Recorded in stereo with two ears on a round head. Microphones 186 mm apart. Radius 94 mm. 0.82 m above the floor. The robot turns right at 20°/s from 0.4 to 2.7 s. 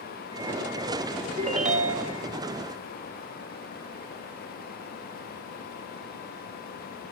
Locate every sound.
1.4 s a ringtone: 30° right (ahead or behind), 0.6 m; by 2.2 s 45° right (ahead or behind), 0.6 m